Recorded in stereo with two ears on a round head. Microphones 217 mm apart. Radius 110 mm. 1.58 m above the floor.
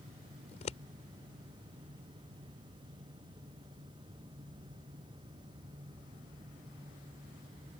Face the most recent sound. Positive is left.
turn(degrees=30)  # may be behind; listen again after turning